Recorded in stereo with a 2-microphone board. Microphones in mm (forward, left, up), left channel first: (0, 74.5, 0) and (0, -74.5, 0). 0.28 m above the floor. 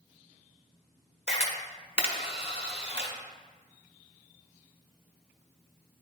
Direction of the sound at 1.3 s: 45° left (ahead or behind).